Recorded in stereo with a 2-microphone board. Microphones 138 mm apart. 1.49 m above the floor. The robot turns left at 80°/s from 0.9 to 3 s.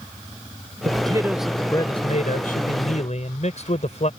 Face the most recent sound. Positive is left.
turn(degrees=55)